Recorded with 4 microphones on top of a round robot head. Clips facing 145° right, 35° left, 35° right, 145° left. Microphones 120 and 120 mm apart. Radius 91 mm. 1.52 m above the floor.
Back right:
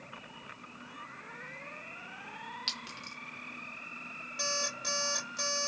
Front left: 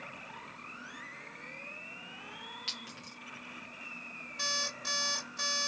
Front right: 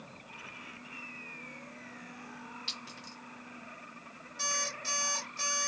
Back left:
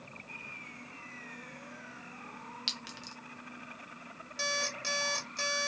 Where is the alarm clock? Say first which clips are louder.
Back right 3 dB, back left 2 dB; 165° left, 1.4 m.